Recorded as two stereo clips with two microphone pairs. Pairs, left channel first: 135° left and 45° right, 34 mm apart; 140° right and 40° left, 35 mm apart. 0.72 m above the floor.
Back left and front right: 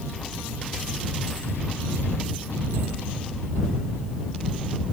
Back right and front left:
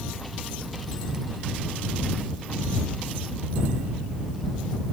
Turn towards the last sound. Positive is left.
No sound to turn to.